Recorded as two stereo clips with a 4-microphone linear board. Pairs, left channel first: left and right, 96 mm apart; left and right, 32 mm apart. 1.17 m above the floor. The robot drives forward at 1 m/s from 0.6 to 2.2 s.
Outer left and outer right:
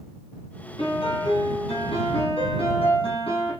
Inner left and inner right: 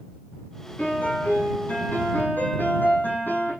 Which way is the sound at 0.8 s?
75° left (ahead or behind).